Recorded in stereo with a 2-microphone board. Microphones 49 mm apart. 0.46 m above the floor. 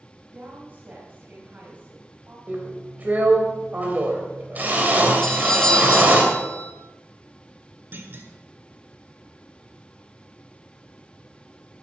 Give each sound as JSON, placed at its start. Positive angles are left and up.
{"t": 0.3, "sound": "a woman speaking", "side_deg": -35, "distance_m": 3.5}
{"t": 2.5, "sound": "a drill", "side_deg": -35, "distance_m": 2.5}
{"t": 5.2, "sound": "a doorbell", "side_deg": 10, "distance_m": 1.3}
{"t": 7.9, "sound": "a clunk", "side_deg": -45, "distance_m": 1.6}